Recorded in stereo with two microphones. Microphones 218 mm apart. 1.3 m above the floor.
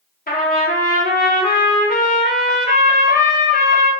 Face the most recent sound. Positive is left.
turn(degrees=40)  # may be behind; listen again after turning